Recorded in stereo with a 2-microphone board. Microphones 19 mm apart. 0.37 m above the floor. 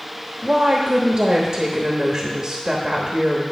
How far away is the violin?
I don't hear a violin.